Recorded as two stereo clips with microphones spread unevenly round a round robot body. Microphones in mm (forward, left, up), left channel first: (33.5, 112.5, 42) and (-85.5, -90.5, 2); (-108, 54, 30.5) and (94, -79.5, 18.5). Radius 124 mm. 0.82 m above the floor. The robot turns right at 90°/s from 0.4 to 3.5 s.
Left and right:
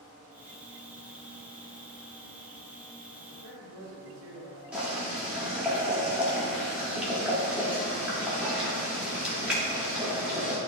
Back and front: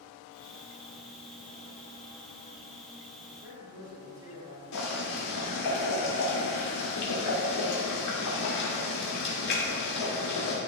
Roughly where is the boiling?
Behind left.